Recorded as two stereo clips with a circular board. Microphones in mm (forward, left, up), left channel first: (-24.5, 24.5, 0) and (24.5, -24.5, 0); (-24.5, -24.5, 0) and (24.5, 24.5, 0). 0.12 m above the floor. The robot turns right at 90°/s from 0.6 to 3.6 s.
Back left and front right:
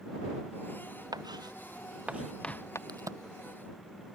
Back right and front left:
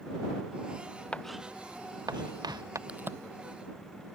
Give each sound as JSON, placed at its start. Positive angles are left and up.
{"t": 1.1, "sound": "writing", "azimuth_deg": -60}
{"t": 2.9, "sound": "a crack", "azimuth_deg": -30}